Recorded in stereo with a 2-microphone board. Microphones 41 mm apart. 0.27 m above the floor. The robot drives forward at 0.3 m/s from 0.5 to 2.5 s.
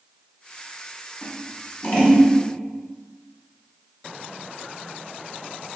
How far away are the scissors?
About 1.6 m.